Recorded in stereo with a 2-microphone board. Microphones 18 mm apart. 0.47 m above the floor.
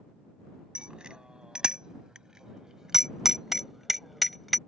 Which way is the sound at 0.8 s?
60° right (ahead or behind).